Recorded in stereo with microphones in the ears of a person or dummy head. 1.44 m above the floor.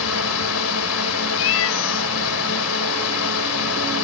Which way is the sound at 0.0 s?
80° left.